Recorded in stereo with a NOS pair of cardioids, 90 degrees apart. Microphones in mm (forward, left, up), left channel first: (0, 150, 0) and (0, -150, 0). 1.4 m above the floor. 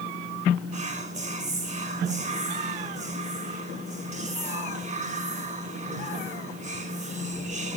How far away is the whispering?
About 1.0 m.